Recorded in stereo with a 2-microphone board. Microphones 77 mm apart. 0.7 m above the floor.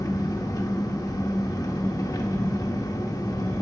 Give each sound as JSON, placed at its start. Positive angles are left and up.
{"t": 0.0, "sound": "an engine running", "side_deg": 50, "distance_m": 0.8}